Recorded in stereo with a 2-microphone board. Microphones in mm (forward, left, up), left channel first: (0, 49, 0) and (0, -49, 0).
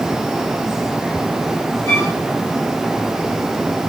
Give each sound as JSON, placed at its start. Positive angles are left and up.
{"t": 1.9, "sound": "a violin", "side_deg": 25, "distance_m": 9.0}